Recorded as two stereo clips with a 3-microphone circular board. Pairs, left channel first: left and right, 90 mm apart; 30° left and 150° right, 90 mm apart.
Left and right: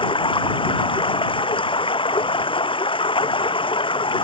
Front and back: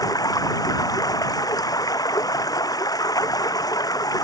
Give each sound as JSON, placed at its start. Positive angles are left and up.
{"t": 0.0, "sound": "running water", "azimuth_deg": 75}